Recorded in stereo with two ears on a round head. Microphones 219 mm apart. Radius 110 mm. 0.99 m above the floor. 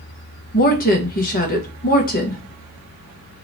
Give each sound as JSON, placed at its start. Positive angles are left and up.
{"t": 0.5, "sound": "a woman speaking", "side_deg": 35, "distance_m": 1.1}